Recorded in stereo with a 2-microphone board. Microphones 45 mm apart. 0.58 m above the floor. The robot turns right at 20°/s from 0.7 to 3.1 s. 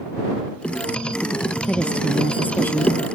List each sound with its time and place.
1.7 s a woman speaking: 20° left (ahead or behind); by 3.1 s 50° left (ahead or behind)